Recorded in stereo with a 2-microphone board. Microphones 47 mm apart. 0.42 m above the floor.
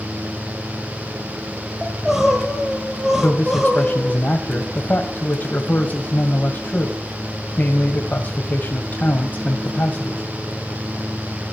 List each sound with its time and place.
1.8 s crying: 10° right (ahead or behind), 3 m
3.2 s a man speaking: 45° left (ahead or behind), 2 m